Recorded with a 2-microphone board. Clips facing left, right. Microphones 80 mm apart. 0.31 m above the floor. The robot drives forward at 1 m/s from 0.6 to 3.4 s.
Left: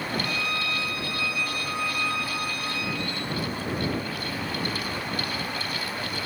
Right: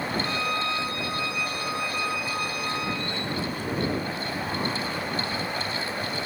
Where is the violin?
35° right (ahead or behind), 0.6 m; by 3.0 s 10° right (ahead or behind), 2.5 m.